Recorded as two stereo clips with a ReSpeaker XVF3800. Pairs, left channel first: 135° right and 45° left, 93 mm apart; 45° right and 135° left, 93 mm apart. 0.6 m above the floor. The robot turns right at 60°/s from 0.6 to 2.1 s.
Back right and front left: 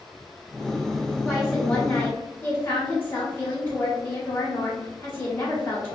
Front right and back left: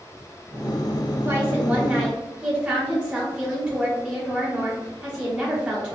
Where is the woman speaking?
150° left, 1.0 m; by 6.0 s 160° right, 1.0 m.